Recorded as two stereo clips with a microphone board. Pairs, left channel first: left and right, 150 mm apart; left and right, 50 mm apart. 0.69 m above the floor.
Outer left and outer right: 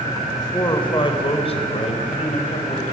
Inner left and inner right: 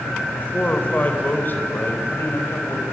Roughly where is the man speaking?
Left.